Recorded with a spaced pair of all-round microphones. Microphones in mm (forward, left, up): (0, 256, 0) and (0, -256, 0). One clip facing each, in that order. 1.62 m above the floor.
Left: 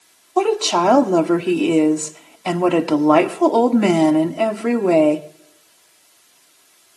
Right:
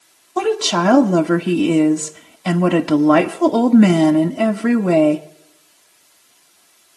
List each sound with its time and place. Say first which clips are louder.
0.4 s a woman speaking: left 1 dB; 40° right (ahead or behind), 0.8 m